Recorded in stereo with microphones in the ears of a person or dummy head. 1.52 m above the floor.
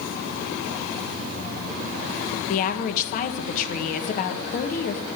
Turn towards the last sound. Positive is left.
turn(degrees=45)  # may be behind; listen again after turning